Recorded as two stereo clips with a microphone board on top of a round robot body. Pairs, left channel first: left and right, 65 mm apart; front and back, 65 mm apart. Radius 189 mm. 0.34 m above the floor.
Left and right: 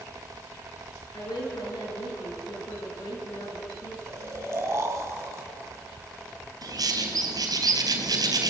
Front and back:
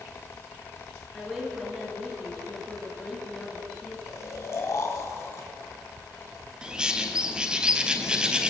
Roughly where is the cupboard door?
No cupboard door in this recording.